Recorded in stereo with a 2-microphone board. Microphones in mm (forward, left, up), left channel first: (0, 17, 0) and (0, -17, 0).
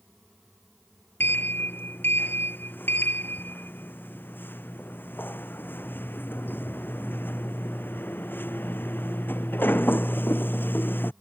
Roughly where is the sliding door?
Left.